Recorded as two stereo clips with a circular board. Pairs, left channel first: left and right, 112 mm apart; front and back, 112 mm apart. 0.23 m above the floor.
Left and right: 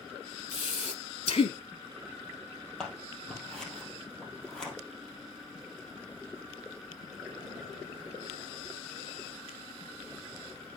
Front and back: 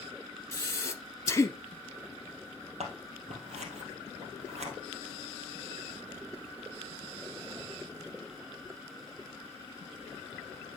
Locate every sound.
0.5 s breathing: 65° left, 0.6 m
2.8 s scissors: 175° left, 2 m